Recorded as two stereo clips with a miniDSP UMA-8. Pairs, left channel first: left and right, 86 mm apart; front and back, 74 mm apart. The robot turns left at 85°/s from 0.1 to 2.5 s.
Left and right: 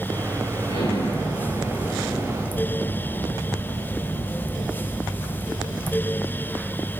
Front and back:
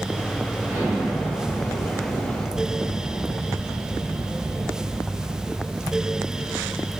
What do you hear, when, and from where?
0.6 s an explosion: 125° left, 6 m; by 6.7 s 30° right, 6 m